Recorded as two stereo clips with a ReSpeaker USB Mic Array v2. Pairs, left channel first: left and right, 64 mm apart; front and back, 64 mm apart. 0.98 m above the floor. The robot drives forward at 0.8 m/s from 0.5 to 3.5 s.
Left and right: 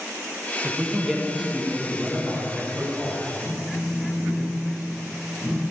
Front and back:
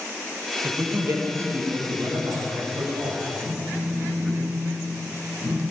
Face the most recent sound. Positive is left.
turn(degrees=170)